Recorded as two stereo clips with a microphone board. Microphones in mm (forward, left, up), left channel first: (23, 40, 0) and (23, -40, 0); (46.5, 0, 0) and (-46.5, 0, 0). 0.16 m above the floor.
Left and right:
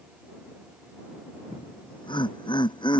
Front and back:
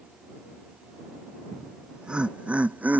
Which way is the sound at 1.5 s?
95° left.